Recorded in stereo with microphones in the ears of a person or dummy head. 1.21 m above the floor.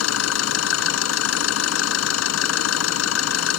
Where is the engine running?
80° left.